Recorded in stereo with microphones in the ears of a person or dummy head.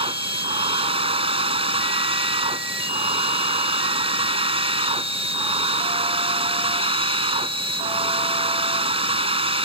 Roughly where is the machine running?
Right.